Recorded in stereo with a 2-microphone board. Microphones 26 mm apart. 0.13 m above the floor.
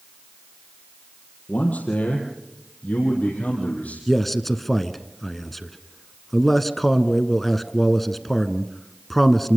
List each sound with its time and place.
1.5 s a man speaking: 70° left (ahead or behind), 4 m; by 4.0 s 65° left (ahead or behind), 5.5 m
4.1 s a man speaking: 5° left (ahead or behind), 1.2 m